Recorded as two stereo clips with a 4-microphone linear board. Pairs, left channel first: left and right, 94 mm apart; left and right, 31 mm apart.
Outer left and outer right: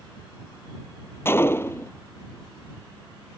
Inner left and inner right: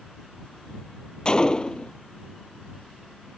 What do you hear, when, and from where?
1.2 s a gunshot: 25° left (ahead or behind)